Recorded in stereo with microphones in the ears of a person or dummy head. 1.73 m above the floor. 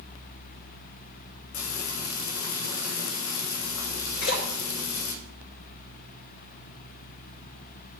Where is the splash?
85° left, 5 m.